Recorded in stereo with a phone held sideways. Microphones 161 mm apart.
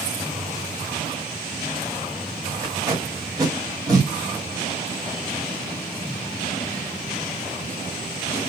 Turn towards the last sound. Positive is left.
turn(degrees=-20)  # may be behind; listen again after turning